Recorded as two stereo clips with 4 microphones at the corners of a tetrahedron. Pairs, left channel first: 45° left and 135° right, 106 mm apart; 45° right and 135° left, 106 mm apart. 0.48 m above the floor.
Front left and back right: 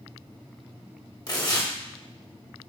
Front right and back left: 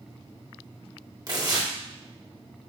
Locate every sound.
1.3 s tearing paper: 90° left, 0.9 m